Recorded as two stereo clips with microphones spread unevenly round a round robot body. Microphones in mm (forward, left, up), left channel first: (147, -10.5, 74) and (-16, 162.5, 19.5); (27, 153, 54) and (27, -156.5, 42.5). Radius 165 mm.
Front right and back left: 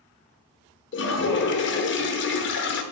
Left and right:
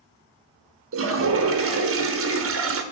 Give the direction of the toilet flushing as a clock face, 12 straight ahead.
3 o'clock.